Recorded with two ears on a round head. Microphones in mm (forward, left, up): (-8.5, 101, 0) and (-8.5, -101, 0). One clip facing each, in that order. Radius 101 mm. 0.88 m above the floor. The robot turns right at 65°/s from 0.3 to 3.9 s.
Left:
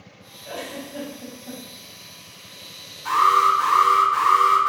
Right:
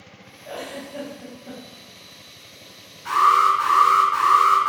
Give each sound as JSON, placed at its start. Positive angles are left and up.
{"t": 0.5, "sound": "a giggle", "azimuth_deg": 140, "distance_m": 1.1}
{"t": 3.0, "sound": "an alarm", "azimuth_deg": 105, "distance_m": 2.0}